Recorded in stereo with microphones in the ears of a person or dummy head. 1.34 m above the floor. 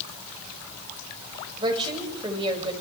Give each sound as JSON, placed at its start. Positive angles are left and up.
{"t": 1.6, "sound": "a woman speaking", "side_deg": -25, "distance_m": 7.0}